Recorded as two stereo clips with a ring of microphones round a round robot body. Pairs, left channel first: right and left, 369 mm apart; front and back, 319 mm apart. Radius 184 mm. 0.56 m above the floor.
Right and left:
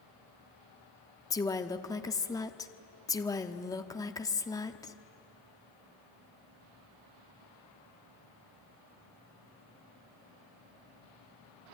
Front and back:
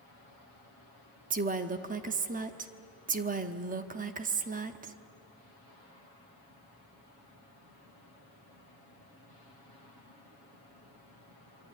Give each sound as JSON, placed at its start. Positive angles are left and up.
{"t": 1.3, "sound": "a woman speaking", "azimuth_deg": -160, "distance_m": 1.0}